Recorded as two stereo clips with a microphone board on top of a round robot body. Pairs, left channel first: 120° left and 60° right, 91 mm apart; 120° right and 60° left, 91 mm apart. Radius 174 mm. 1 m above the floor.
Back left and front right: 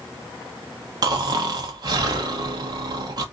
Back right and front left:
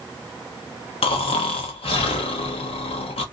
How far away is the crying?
No crying in this recording.